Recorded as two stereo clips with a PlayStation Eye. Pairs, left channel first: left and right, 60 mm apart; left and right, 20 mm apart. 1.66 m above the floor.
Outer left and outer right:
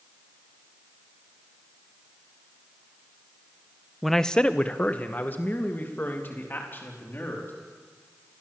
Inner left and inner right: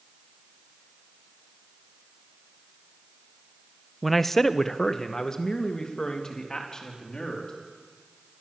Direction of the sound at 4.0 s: Centre (ahead or behind).